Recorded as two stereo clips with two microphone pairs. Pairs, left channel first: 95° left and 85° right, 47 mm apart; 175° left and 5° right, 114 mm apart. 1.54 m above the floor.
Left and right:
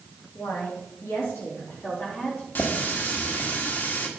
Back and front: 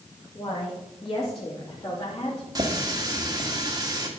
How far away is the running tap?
About 1.9 m.